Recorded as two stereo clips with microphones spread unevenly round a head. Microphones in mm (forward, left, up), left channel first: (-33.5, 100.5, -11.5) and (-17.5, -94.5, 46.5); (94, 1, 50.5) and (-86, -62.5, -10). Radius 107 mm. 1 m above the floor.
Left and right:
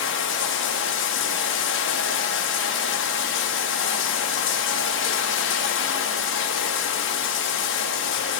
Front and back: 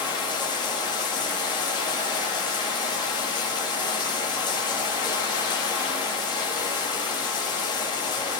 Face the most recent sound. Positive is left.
turn(degrees=95)